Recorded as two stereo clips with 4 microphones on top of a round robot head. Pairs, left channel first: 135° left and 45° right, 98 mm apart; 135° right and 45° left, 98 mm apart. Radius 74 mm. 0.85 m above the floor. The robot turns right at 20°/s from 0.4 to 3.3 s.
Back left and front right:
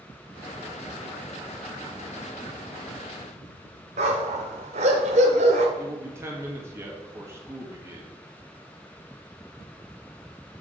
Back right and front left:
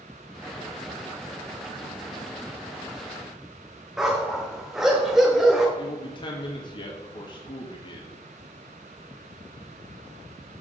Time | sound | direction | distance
4.0 | a dog barking | 35° right | 1.1 m
5.8 | a man speaking | 105° right | 1.8 m